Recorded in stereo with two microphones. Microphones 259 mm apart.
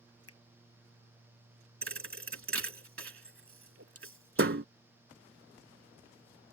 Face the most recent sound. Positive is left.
turn(degrees=-60)  # may be behind; listen again after turning